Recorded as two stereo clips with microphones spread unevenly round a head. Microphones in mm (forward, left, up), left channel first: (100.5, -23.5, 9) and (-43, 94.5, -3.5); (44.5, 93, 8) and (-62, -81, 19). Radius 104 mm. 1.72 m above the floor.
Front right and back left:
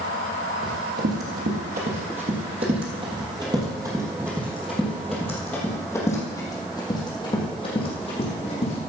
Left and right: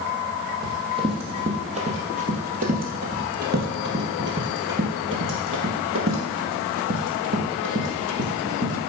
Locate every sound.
0.6 s running footsteps: 175° left, 3 m; by 8.8 s 95° right, 4 m